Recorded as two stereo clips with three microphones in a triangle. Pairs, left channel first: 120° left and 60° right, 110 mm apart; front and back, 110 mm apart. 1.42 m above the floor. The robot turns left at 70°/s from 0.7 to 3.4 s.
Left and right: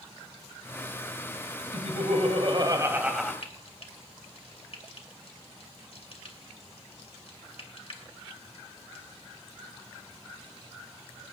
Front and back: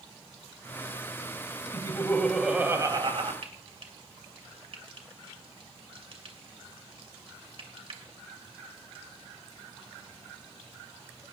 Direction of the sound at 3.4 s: 150° left.